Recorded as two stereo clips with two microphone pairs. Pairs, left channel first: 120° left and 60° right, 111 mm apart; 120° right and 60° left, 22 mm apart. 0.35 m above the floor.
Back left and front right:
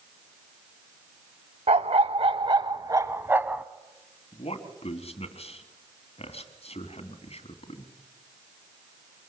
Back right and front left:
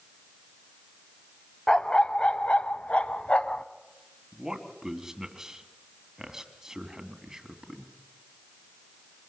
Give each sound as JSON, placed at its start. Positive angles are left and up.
{"t": 1.7, "sound": "a dog barking", "azimuth_deg": -65, "distance_m": 0.9}
{"t": 4.3, "sound": "a man speaking", "azimuth_deg": 125, "distance_m": 2.5}